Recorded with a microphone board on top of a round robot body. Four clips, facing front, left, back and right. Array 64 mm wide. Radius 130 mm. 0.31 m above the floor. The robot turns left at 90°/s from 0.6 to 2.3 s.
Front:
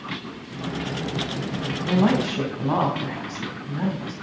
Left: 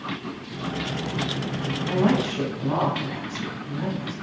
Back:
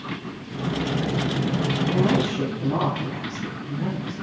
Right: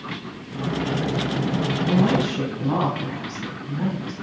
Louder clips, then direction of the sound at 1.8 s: Right 1 dB, front 3 dB; 35° left.